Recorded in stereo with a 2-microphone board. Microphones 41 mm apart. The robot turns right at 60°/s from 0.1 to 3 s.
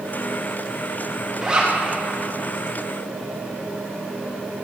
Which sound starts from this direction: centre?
A zipper, at 1.4 s.